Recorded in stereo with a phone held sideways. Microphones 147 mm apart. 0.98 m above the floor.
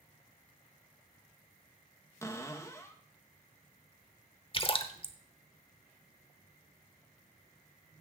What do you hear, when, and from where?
2.2 s a cupboard door: 20° left (ahead or behind), 1.0 m
4.5 s a splash: 35° left (ahead or behind), 0.9 m